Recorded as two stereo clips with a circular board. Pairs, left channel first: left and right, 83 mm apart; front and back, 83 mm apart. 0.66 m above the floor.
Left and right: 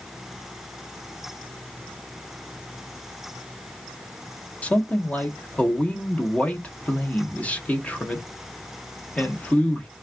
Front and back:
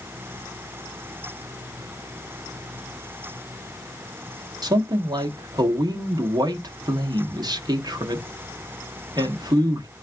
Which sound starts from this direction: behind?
A man speaking, at 4.6 s.